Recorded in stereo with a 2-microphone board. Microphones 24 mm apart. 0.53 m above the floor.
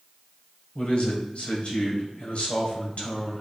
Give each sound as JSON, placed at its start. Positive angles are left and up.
{"t": 0.8, "sound": "a man speaking", "side_deg": 60, "distance_m": 2.0}